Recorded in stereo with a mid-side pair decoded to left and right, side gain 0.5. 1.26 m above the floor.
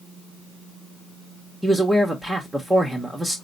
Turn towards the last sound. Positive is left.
turn(degrees=-10)